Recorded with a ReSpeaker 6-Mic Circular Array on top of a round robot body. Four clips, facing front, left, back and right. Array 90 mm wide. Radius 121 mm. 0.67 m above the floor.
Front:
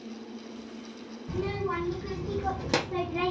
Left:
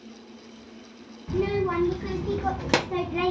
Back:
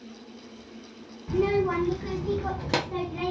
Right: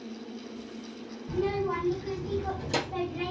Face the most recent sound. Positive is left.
turn(degrees=75)